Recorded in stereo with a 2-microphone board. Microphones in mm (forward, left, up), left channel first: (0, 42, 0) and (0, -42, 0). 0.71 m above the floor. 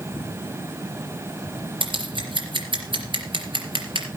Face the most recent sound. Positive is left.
turn(degrees=-70)  # may be behind; listen again after turning